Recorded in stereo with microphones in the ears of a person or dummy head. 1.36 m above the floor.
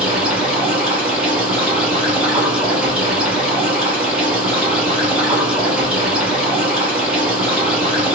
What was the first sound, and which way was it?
Running water, 5° right (ahead or behind).